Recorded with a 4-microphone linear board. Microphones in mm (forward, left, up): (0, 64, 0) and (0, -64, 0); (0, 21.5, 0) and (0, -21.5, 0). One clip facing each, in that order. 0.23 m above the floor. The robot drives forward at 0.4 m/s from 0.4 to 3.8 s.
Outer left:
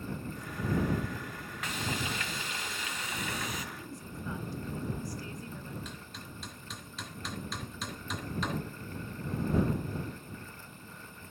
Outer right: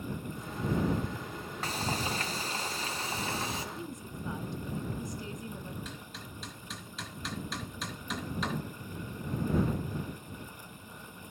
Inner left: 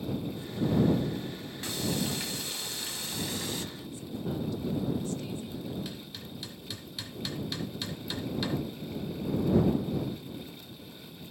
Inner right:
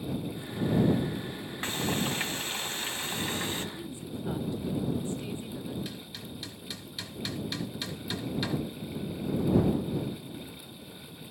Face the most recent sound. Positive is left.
turn(degrees=0)  # may be behind; listen again after turning